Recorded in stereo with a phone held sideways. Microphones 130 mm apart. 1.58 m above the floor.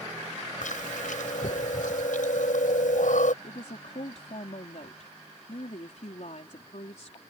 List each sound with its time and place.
0.6 s chewing: 85° left
3.4 s a woman speaking: 65° left (ahead or behind)